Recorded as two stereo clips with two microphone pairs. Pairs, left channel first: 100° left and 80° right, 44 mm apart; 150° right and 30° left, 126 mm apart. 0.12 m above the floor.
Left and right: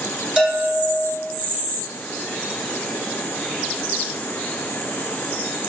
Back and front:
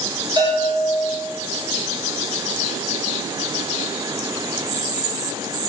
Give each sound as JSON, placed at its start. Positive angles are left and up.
{"t": 0.4, "sound": "a bell", "azimuth_deg": -5, "distance_m": 1.0}